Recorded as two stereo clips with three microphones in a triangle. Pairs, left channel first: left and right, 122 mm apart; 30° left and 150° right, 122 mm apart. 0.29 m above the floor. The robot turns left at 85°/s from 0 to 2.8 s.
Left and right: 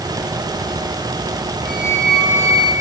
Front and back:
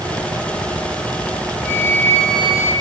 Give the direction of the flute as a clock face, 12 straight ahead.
10 o'clock.